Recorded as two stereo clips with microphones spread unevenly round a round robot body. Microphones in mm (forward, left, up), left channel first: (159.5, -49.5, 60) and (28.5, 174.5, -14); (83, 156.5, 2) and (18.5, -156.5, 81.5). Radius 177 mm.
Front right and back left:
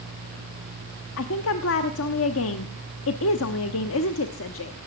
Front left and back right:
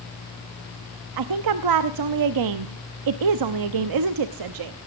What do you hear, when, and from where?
1.2 s a woman speaking: 105° right, 0.8 m